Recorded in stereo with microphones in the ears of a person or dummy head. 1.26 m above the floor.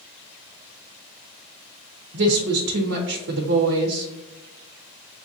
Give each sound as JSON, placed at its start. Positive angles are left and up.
{"t": 2.1, "sound": "a woman speaking", "side_deg": -65, "distance_m": 0.9}